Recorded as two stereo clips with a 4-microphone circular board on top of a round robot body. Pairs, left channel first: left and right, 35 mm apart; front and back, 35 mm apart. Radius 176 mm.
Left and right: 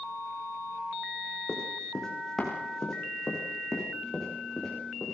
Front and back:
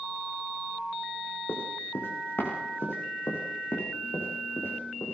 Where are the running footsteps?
15° left, 4 m; by 5.1 s 5° left, 7 m.